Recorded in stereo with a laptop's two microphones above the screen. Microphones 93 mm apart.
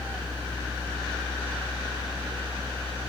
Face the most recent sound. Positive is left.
turn(degrees=-70)  # may be behind; listen again after turning